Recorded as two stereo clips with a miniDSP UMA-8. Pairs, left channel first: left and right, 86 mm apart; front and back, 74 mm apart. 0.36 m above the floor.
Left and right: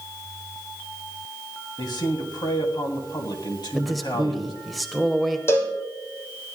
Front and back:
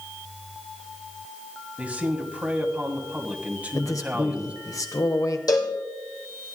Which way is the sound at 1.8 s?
110° left.